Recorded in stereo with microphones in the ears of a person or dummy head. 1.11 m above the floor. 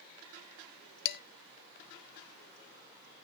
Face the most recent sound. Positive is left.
turn(degrees=55)  # may be behind; listen again after turning